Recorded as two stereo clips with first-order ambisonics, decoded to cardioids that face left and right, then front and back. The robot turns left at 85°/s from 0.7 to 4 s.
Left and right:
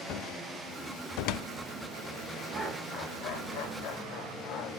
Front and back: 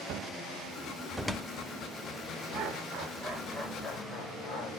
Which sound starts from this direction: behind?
Laughter, at 2.5 s.